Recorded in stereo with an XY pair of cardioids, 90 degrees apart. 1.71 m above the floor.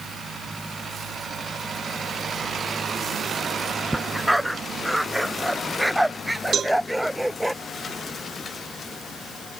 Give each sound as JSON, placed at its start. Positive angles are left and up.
{"t": 3.9, "sound": "a dog barking", "azimuth_deg": 0}
{"t": 6.5, "sound": "a cowbell", "azimuth_deg": -55}